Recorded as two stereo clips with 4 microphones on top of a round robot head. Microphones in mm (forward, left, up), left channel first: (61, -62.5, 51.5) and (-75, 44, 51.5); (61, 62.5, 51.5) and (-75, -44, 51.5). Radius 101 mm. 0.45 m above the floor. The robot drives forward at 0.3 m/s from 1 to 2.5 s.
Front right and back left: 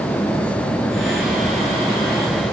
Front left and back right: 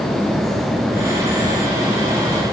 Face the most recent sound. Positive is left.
No sound to turn to.